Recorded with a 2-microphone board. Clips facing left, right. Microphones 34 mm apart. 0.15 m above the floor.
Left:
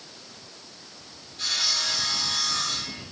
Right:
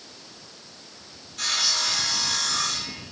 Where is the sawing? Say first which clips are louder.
Right 2 dB; 80° right, 7 m.